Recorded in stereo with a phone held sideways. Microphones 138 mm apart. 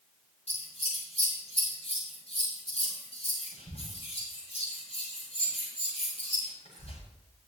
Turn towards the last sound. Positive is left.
turn(degrees=55)  # may be behind; listen again after turning